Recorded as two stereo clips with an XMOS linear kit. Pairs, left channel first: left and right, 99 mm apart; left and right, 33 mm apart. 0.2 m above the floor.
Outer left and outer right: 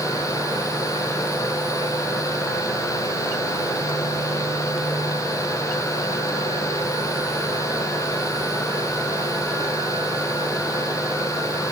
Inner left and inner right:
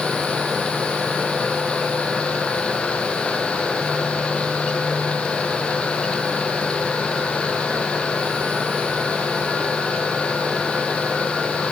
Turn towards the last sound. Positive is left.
No sound to turn to.